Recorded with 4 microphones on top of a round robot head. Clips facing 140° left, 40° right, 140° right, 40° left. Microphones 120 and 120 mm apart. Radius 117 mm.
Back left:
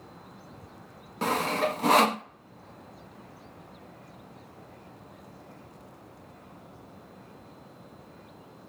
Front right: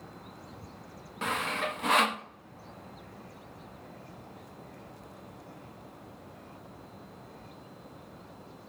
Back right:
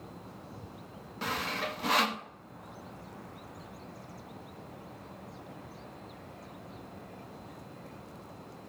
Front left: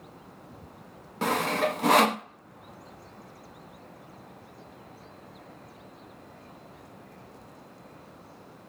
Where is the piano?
No piano in this recording.